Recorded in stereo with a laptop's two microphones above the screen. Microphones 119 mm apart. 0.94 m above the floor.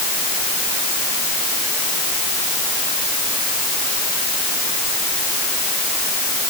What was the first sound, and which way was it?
Only background noise.